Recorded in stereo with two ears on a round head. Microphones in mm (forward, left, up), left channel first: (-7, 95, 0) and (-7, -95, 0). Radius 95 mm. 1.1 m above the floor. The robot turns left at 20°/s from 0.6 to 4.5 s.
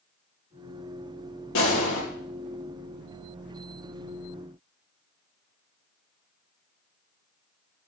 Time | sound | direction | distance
1.6 | a gunshot | 70° left (ahead or behind) | 5 m